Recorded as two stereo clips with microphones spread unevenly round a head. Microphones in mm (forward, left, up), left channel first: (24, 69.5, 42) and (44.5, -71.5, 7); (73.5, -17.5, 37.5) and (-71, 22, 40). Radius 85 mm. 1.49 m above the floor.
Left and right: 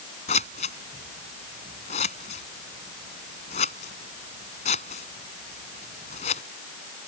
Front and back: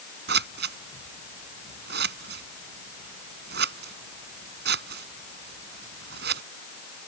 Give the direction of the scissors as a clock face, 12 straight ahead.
7 o'clock.